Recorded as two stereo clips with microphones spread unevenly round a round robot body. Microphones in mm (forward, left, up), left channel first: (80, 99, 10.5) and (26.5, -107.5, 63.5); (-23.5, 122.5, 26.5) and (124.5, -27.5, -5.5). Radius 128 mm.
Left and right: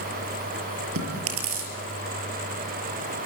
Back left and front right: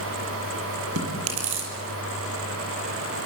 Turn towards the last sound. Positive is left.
turn(degrees=-85)